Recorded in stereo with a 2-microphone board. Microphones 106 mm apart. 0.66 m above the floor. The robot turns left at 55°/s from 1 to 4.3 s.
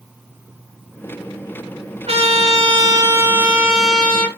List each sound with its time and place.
2.1 s a trumpet: 85° right, 4 m; by 4.3 s 155° left, 4 m